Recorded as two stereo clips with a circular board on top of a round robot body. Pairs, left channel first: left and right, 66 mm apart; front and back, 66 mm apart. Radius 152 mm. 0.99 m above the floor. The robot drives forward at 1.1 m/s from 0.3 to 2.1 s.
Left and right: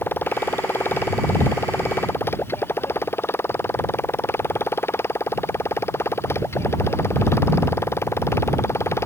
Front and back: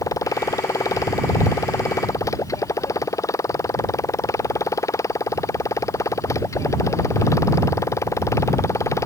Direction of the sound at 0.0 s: 35° left.